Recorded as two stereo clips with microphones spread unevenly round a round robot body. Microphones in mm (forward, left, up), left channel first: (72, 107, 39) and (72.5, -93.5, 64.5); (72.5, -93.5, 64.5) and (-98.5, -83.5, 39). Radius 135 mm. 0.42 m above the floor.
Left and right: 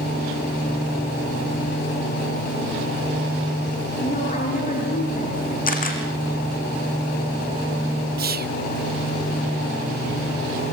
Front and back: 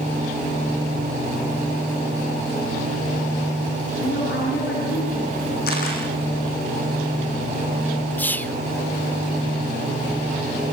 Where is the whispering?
90° right, 1.1 m.